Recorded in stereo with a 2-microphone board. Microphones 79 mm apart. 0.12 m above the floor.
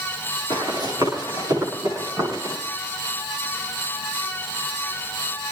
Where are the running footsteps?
60° right (ahead or behind), 9.5 m; by 2.5 s 45° right (ahead or behind), 11 m.